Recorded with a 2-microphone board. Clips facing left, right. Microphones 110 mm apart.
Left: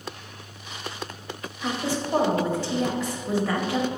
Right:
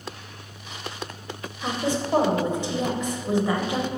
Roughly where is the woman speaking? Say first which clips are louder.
Right 2 dB; centre.